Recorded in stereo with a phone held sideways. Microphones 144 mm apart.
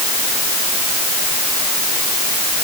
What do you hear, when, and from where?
Only background noise.